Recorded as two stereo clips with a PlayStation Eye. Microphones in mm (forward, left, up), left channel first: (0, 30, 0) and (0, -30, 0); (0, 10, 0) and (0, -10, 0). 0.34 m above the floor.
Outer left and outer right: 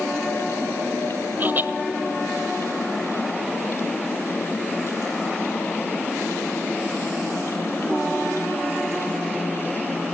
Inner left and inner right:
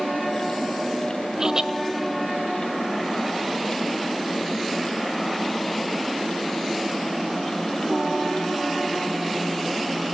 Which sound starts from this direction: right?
Laughter, at 1.4 s.